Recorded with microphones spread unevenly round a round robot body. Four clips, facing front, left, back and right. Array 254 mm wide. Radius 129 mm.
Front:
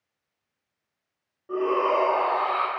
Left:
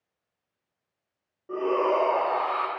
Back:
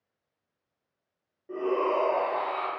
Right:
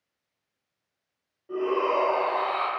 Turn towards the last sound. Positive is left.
turn(degrees=65)